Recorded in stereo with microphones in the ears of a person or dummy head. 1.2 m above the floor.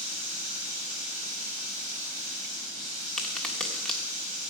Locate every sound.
0.0 s running water: 40° right (ahead or behind), 5.5 m
3.2 s a crack: 5° left (ahead or behind), 1.4 m